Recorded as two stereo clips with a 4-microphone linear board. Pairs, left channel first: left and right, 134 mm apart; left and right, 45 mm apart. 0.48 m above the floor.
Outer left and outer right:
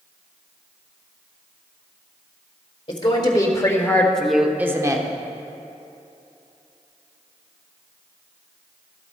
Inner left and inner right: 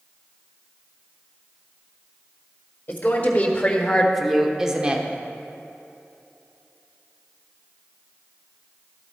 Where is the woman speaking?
40° left (ahead or behind), 1.5 m; by 5.1 s 30° right (ahead or behind), 1.0 m.